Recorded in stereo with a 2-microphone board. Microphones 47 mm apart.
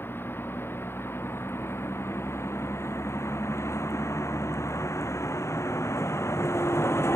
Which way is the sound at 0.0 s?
50° left (ahead or behind).